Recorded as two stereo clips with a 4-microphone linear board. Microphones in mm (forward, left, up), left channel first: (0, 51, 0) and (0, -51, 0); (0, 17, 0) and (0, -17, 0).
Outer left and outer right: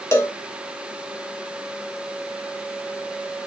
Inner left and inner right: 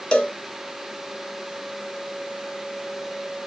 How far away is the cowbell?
About 1.2 m.